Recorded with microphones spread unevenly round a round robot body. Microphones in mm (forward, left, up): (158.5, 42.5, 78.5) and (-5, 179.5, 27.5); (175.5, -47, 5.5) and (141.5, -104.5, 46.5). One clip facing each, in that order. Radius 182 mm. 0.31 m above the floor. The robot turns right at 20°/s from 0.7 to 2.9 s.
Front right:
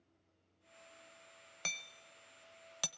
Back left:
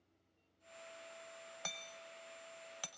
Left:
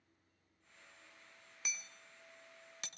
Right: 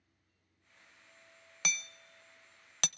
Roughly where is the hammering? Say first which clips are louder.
Front right 1 dB, right 9 dB; behind right.